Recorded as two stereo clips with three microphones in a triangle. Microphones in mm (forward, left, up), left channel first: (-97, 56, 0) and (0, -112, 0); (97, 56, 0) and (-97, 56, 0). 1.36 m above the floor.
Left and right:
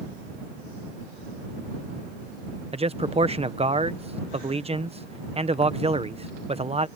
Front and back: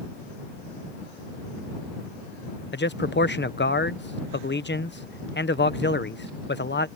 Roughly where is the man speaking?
Ahead.